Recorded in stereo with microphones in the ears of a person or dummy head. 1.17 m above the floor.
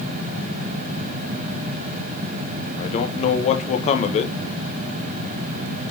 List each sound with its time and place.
2.8 s a man speaking: 40° left (ahead or behind), 0.7 m